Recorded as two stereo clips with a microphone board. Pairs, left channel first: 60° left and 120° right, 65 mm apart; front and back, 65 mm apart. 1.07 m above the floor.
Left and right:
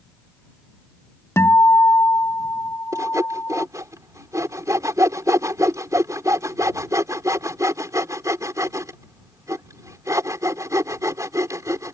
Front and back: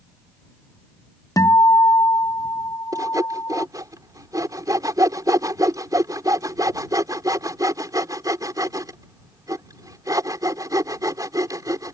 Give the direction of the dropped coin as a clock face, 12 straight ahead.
No dropped coin in this recording.